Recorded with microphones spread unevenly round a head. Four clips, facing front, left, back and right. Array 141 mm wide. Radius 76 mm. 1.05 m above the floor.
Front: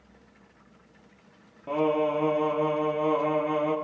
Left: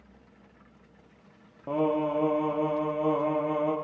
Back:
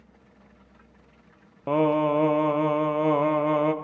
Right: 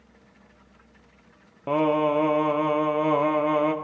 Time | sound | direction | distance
1.7 | singing | 145° right | 0.7 m